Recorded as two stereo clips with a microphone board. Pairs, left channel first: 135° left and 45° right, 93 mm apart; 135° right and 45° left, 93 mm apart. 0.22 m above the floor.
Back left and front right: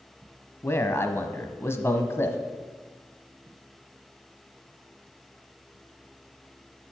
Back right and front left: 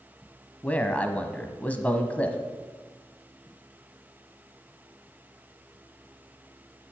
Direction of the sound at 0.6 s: 165° left.